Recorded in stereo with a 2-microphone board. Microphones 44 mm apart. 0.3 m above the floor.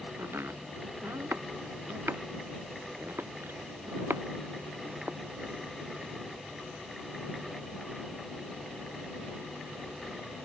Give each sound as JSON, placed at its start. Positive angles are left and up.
{"t": 0.2, "sound": "chopping", "side_deg": -60}